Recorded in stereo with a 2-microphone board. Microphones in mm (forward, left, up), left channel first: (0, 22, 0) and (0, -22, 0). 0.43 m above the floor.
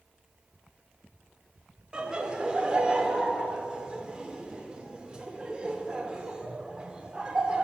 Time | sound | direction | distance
1.9 | laughter | 20° right (ahead or behind) | 0.8 m